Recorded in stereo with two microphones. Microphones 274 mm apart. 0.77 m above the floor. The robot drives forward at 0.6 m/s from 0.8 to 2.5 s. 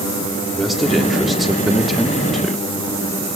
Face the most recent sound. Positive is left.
turn(degrees=0)  # may be behind; listen again after turning